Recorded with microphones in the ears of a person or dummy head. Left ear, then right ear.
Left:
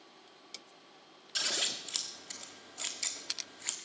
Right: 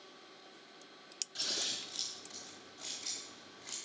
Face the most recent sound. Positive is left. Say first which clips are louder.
# left 4 dB
turn(degrees=30)  # may be behind; listen again after turning